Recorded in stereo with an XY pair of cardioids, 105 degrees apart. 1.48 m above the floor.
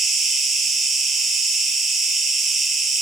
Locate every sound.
0.0 s an insect: 60° right, 0.8 m